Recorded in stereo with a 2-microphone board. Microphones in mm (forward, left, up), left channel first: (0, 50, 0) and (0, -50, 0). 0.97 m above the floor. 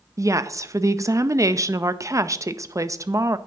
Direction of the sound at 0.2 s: 30° right (ahead or behind).